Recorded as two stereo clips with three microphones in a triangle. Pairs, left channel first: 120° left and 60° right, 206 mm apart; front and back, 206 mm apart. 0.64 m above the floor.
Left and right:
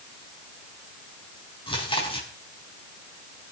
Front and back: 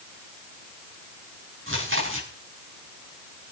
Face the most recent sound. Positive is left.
turn(degrees=-175)